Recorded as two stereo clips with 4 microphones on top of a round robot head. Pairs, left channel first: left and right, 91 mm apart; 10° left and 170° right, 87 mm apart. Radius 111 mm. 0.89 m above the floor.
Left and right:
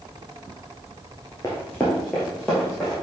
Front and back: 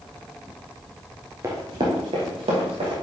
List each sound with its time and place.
1.4 s running footsteps: 155° left, 0.9 m; by 2.9 s straight behind, 2.5 m